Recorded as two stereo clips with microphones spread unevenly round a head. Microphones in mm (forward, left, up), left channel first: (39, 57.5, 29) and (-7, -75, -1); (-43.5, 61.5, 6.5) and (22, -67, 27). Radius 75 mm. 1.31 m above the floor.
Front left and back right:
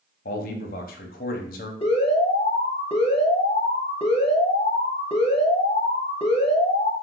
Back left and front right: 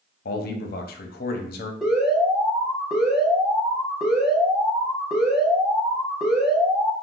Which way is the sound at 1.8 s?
25° left.